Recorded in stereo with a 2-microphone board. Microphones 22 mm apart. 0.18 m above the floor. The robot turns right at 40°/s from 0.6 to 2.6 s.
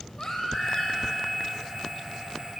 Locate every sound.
0.2 s a baby crying: 35° left (ahead or behind), 3 m; by 1.1 s 55° left (ahead or behind), 3 m